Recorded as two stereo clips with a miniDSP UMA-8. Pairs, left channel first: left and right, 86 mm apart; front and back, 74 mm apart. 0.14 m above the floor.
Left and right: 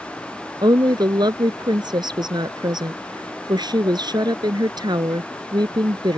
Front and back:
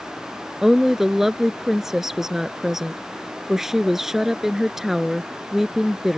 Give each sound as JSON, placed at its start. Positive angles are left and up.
{"t": 0.6, "sound": "a woman speaking", "azimuth_deg": -95}